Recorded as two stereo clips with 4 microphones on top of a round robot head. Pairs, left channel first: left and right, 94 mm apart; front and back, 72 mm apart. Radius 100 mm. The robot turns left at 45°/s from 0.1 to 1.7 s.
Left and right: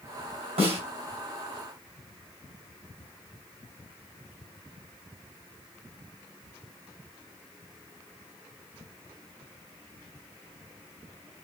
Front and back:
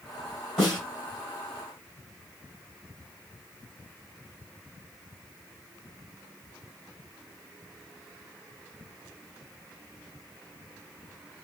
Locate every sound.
0.6 s a snare drum: 85° right, 2.5 m; by 0.8 s 95° right, 2.5 m